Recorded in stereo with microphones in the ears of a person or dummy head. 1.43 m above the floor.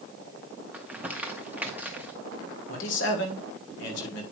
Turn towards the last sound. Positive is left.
turn(degrees=65)  # may be behind; listen again after turning